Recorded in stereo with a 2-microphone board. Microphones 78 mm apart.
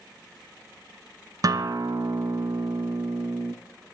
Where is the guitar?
50° right (ahead or behind), 0.8 m.